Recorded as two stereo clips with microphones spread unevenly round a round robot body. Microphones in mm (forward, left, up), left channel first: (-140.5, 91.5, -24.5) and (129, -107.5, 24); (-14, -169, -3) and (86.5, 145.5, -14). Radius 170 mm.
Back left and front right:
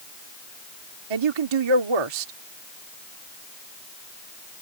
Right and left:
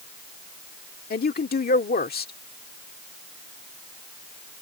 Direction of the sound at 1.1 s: 45° right.